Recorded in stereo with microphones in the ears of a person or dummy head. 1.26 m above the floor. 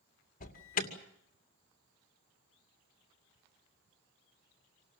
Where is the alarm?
40° left (ahead or behind), 2.5 m.